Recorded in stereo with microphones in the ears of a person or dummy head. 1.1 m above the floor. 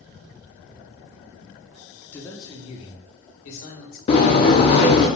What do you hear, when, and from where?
2.1 s a man speaking: 10° left (ahead or behind), 0.9 m; by 4.0 s 45° left (ahead or behind), 2.5 m
4.1 s a sliding door: 25° left (ahead or behind), 0.7 m